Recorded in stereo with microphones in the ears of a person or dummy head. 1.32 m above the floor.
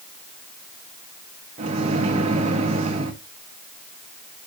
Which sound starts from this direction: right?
A microwave, at 1.6 s.